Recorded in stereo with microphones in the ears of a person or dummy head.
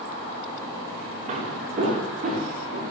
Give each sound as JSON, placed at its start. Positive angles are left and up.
{"t": 1.3, "sound": "footsteps", "side_deg": -45, "distance_m": 6.0}